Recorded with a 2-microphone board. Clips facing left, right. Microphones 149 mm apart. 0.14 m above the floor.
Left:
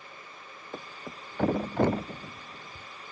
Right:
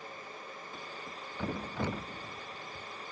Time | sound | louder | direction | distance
0.7 | a thud | left 8 dB | 60° left (ahead or behind) | ?